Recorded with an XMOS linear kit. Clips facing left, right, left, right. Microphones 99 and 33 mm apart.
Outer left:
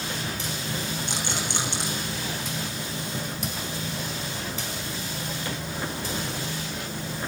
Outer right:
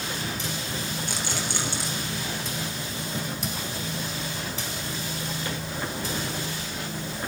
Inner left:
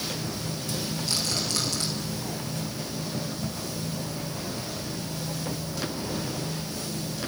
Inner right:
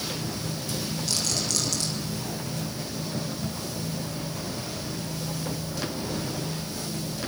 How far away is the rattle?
About 7 m.